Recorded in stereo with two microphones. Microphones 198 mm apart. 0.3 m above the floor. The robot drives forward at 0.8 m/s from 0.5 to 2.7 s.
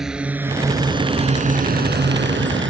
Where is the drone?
5° right (ahead or behind); by 2.7 s 70° right (ahead or behind).